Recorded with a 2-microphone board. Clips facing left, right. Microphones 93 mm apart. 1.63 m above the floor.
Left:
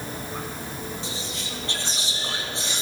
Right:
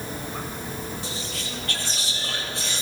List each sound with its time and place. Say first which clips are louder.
1.0 s whispering: even; 25° left (ahead or behind), 3 m